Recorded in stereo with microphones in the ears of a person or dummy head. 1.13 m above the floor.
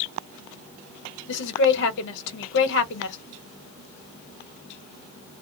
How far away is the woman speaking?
About 1.1 m.